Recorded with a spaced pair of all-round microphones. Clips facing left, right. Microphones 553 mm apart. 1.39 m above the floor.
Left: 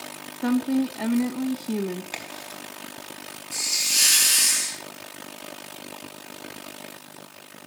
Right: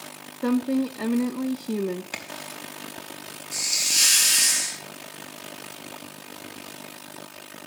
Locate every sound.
0.4 s a woman speaking: 10° left (ahead or behind), 1.8 m
2.1 s a crack: 35° right (ahead or behind), 4 m
3.5 s a hiss: 70° left (ahead or behind), 6 m